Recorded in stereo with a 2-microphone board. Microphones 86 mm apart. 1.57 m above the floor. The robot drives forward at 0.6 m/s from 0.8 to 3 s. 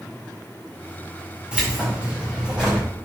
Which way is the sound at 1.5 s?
15° right (ahead or behind).